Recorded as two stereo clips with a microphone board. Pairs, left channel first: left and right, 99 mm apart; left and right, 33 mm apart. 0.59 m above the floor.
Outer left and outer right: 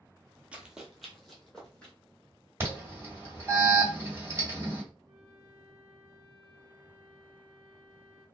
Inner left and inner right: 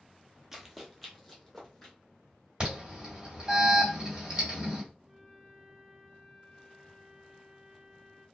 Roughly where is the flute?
Centre.